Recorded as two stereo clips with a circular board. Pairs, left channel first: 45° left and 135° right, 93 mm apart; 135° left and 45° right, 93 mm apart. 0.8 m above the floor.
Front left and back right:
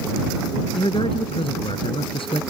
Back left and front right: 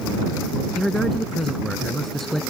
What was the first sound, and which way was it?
A man speaking, 50° left.